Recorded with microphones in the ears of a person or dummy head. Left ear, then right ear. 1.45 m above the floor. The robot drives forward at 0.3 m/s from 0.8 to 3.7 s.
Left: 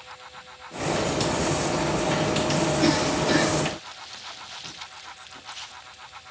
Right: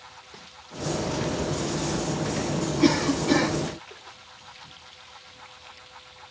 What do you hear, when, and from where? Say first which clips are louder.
2.8 s a cough: right 4 dB; 15° right (ahead or behind), 5.5 m